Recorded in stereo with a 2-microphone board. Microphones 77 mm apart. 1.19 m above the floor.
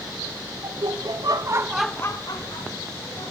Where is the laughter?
75° right (ahead or behind), 1.6 m; by 3.3 s 75° left (ahead or behind), 2 m.